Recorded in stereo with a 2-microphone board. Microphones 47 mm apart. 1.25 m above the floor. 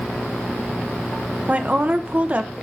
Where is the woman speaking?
35° right (ahead or behind), 1.0 m.